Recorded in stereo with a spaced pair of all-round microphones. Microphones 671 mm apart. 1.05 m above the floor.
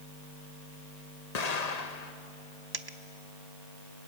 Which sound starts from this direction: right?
A dropped coin, at 2.7 s.